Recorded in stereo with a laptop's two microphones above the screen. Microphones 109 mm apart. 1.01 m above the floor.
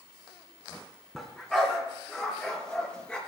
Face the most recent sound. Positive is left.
turn(degrees=10)  # may be behind; listen again after turning